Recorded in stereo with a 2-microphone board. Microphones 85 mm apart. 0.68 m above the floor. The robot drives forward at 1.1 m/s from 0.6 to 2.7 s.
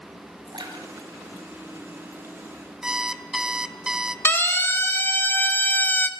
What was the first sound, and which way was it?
A splash, 60° right (ahead or behind).